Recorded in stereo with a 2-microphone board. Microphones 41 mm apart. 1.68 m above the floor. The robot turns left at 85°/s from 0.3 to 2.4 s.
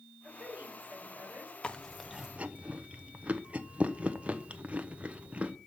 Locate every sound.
0.2 s a woman speaking: 35° right, 6.5 m; by 1.5 s 140° right, 6.5 m
1.6 s chewing: 30° left (ahead or behind), 0.9 m; by 5.5 s 30° right (ahead or behind), 0.9 m